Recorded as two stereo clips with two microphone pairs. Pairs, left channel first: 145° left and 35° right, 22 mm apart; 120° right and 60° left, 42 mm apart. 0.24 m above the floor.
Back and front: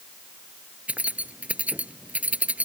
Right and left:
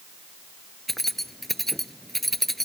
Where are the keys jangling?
35° right.